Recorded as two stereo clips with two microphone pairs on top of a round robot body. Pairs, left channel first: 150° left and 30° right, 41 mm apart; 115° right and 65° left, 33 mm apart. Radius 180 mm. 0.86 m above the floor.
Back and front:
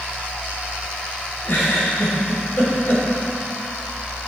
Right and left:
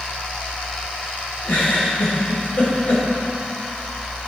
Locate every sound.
1.4 s a giggle: 160° right, 1.6 m